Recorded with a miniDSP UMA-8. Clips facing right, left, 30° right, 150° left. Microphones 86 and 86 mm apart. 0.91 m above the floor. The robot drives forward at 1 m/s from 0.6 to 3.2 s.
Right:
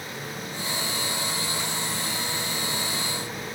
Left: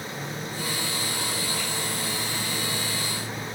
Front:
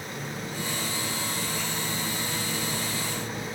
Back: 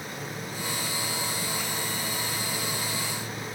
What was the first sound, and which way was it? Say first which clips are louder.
A microwave: left 1 dB, front 3 dB; 10° left.